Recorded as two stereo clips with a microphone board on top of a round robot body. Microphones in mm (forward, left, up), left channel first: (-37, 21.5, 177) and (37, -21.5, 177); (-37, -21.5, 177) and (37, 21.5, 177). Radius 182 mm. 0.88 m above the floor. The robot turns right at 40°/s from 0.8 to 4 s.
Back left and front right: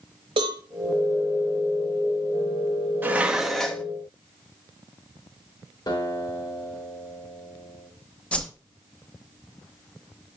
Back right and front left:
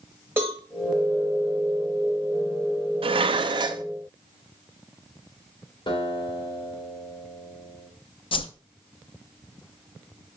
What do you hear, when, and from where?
0.4 s a cowbell: 35° right, 0.8 m
3.0 s dishes clattering: 40° left, 0.7 m; by 3.8 s 75° left, 0.7 m
5.9 s a guitar: 170° right, 3.5 m
8.3 s a whoosh: 135° right, 0.7 m